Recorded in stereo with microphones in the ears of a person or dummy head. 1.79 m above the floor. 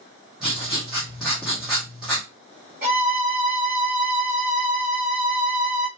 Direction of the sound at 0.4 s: 5° right (ahead or behind).